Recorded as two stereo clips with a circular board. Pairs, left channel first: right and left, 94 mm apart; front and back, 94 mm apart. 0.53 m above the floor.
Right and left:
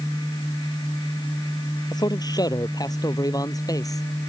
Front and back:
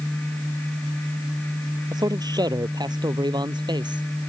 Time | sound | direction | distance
1.9 | a man speaking | 135° right | ?